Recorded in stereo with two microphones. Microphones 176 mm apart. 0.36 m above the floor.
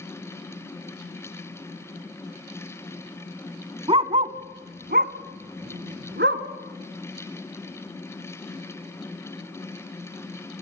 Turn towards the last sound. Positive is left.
turn(degrees=-75)  # may be behind; listen again after turning